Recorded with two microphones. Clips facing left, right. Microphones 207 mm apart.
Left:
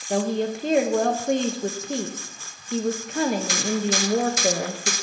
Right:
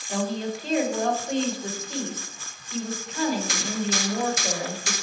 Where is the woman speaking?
55° left (ahead or behind), 0.6 m.